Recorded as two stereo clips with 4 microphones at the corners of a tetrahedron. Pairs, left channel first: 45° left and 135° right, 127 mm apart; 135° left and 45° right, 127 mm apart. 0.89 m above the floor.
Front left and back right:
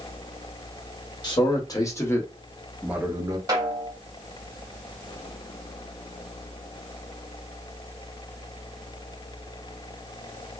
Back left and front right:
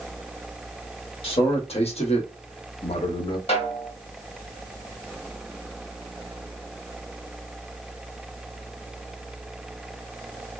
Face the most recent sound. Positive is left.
turn(degrees=170)